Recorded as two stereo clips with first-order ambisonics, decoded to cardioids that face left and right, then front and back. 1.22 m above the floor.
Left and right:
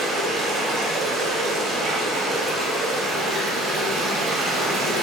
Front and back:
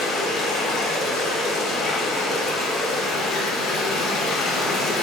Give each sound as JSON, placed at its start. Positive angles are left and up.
{"t": 0.0, "sound": "running water", "azimuth_deg": -45, "distance_m": 0.8}